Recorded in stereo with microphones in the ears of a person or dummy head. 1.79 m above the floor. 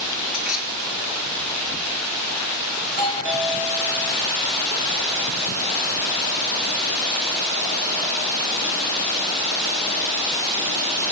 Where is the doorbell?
55° right (ahead or behind), 7.5 m.